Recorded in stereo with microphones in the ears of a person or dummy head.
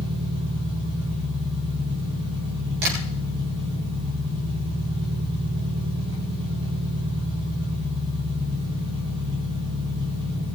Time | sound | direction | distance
0.0 | an engine running | 70° right (ahead or behind) | 4 m
2.8 | tapping | 65° right (ahead or behind) | 7 m